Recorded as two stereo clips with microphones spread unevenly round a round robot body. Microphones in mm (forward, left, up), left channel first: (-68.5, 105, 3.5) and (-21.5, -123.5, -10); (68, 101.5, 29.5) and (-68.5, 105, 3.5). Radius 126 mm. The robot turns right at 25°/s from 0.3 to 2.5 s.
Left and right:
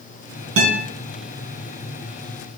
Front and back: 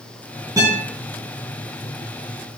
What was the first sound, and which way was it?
A guitar, 105° right.